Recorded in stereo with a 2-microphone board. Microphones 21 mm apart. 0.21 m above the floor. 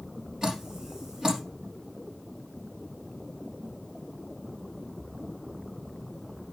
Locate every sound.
0.4 s dripping: 45° right (ahead or behind), 3.5 m